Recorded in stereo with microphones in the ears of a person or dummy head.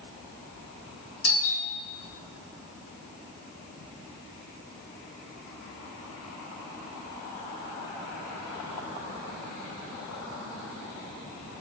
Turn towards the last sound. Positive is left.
turn(degrees=50)  # may be behind; listen again after turning